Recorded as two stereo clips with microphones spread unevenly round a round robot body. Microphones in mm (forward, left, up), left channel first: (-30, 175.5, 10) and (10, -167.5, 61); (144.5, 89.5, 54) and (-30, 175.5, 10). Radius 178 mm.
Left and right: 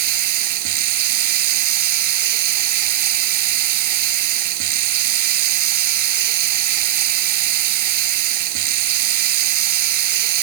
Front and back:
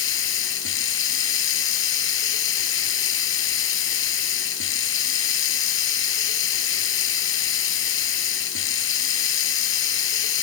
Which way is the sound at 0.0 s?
45° right.